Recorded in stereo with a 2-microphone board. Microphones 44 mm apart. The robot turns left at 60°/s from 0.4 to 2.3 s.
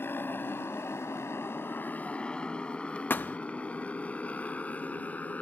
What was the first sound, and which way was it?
A motorcycle, 60° left (ahead or behind).